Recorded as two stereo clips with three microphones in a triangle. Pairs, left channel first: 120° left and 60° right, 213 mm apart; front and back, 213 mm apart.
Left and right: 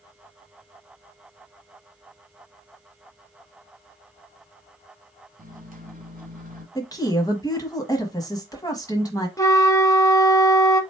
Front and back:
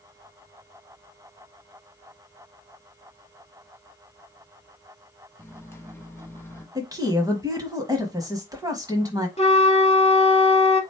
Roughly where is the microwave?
Right.